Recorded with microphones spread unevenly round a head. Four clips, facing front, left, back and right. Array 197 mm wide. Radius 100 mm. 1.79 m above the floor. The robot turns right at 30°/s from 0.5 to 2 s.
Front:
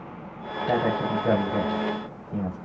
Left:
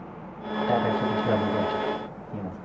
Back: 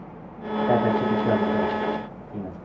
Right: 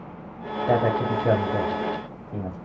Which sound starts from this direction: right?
A man speaking, at 0.7 s.